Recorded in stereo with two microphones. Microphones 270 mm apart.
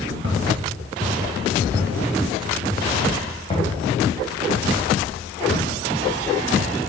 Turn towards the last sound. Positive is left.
turn(degrees=45)  # may be behind; listen again after turning